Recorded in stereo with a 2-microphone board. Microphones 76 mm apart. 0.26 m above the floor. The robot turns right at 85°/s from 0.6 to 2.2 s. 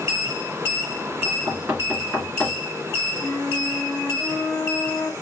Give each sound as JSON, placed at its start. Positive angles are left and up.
{"t": 1.2, "sound": "knocking", "side_deg": -55, "distance_m": 2.0}
{"t": 3.2, "sound": "a flute", "side_deg": 10, "distance_m": 1.2}